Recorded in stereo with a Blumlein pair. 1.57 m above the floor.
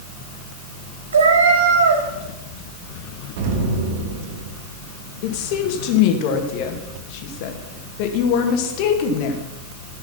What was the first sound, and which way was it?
A cat meowing, 70° right.